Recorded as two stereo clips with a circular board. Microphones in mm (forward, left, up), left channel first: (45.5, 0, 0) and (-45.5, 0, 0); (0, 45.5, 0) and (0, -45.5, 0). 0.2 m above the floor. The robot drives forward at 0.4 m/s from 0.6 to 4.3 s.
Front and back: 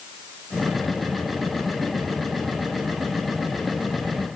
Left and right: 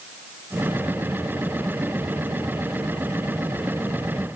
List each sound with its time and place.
Only background noise.